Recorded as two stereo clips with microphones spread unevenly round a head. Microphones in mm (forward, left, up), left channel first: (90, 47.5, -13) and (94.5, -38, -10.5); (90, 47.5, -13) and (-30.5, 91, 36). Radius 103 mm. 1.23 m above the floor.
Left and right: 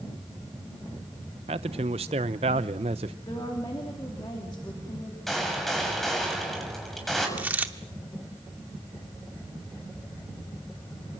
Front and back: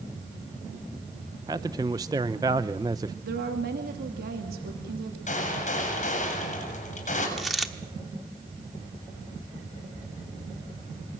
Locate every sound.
1.5 s a man speaking: 125° right, 0.6 m
3.2 s a woman speaking: 165° left, 2.5 m
5.3 s a gunshot: 5° left, 7 m
7.4 s a dropped coin: 145° right, 0.9 m